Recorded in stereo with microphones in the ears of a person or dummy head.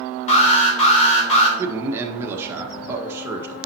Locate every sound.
0.3 s an alarm: 35° left (ahead or behind), 3 m
1.6 s a man speaking: 15° right (ahead or behind), 1.5 m